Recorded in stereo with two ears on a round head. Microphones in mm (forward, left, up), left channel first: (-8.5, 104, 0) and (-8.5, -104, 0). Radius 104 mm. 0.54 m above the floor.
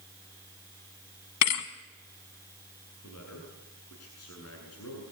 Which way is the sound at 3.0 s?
70° left (ahead or behind).